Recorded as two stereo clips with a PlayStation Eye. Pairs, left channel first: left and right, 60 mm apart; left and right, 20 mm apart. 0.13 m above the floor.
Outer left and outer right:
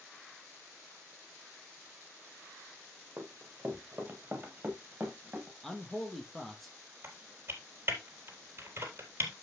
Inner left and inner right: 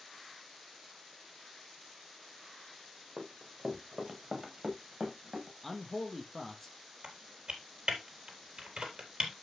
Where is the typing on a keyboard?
40° right (ahead or behind), 3.5 m.